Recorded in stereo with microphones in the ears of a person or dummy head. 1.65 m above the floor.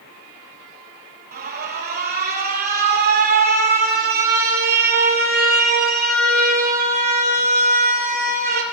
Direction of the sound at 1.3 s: 45° right (ahead or behind).